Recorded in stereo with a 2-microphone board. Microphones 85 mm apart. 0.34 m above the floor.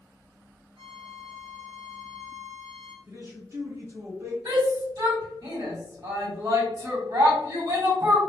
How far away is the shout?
About 2.0 m.